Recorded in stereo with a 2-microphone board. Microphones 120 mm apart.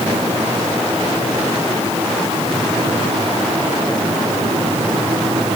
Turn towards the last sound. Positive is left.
No sound to turn to.